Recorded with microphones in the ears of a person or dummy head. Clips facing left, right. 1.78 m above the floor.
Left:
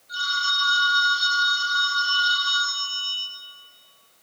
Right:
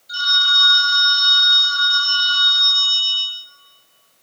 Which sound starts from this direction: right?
A phone ringing, at 0.1 s.